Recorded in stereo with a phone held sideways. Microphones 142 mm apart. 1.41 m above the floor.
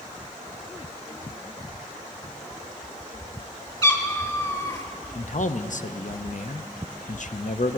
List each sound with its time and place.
3.8 s a cat meowing: 25° left (ahead or behind), 1.6 m
5.2 s a man speaking: 60° left (ahead or behind), 0.6 m